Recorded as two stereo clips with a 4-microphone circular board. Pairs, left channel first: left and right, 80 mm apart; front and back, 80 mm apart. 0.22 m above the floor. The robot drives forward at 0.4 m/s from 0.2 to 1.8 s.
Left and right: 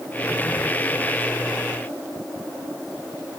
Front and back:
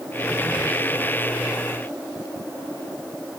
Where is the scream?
No scream in this recording.